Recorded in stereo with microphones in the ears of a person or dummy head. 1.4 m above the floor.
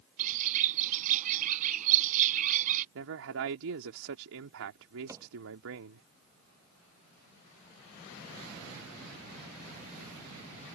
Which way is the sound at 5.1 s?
15° right (ahead or behind).